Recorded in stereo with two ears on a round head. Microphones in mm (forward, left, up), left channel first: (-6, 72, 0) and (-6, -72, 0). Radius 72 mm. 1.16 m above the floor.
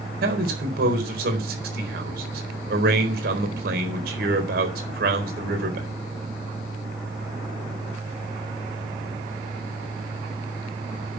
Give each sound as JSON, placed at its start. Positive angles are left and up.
{"t": 0.2, "sound": "a man speaking", "side_deg": -65, "distance_m": 4.0}